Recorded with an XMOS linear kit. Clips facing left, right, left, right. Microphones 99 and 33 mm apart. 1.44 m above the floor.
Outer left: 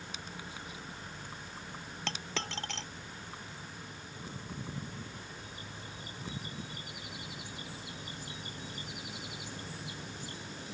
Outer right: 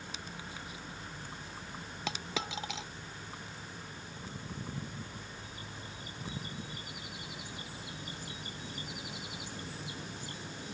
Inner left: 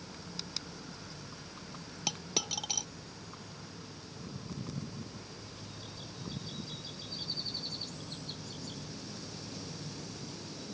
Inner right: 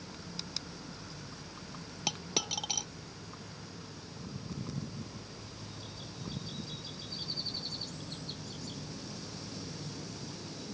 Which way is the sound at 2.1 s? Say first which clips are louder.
Outer right 1 dB, inner right 1 dB; 5° right (ahead or behind).